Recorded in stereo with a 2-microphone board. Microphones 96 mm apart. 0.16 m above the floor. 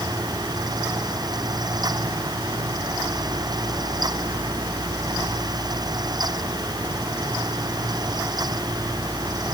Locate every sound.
Only background noise.